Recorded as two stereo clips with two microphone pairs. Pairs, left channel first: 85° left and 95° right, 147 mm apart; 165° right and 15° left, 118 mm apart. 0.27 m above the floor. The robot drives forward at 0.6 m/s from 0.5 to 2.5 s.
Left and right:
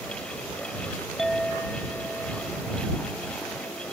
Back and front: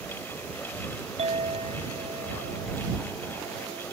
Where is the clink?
Straight ahead.